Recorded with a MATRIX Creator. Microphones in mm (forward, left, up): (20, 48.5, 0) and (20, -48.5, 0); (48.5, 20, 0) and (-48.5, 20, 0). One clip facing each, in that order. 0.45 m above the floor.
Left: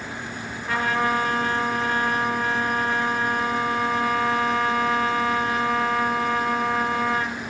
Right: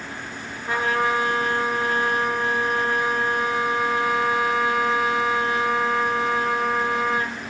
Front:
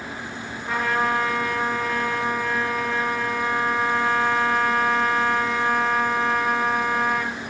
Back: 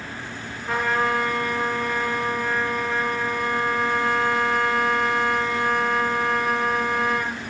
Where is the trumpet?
90° right, 1.5 m.